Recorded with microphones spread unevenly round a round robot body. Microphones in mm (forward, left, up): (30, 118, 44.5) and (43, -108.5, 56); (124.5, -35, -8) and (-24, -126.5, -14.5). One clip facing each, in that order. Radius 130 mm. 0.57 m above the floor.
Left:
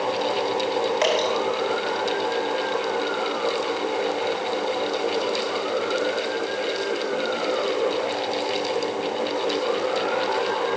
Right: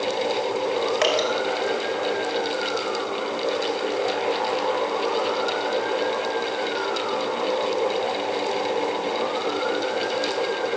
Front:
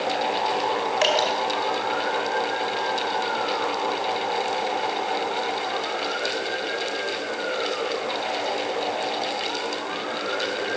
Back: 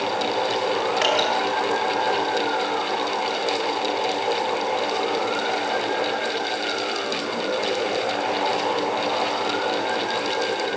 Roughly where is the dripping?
Ahead.